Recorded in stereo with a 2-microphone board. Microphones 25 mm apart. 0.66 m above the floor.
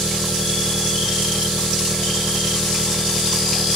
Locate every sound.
0.0 s an engine running: 55° left (ahead or behind)